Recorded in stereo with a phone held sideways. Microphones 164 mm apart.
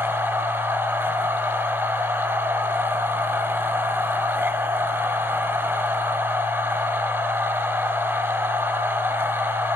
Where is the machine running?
15° right (ahead or behind), 0.9 m.